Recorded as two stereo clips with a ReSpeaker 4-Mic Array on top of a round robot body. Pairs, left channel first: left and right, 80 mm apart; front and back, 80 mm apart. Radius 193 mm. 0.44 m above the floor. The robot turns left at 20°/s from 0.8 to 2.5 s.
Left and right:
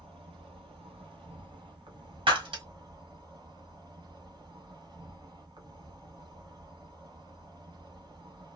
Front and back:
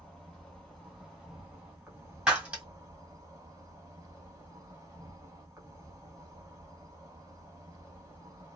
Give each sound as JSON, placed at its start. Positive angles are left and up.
{"t": 0.0, "sound": "an insect", "azimuth_deg": -90, "distance_m": 0.8}
{"t": 2.3, "sound": "breaking glass", "azimuth_deg": -100, "distance_m": 1.4}